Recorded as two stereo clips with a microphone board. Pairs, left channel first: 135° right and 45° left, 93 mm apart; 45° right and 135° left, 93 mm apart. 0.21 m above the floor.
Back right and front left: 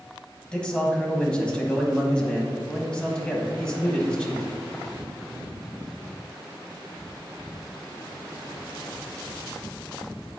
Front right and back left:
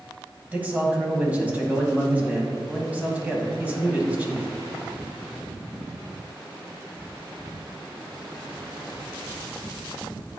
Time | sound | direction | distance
0.5 | a man speaking | 165° left | 1.4 m